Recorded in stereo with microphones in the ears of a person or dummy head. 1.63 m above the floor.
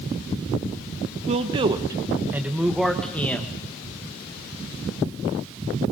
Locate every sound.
1.3 s a man speaking: 35° right (ahead or behind), 1.3 m; by 3.5 s 10° left (ahead or behind), 1.5 m